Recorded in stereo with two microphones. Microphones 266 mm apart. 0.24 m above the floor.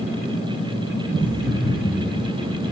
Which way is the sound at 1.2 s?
5° right (ahead or behind).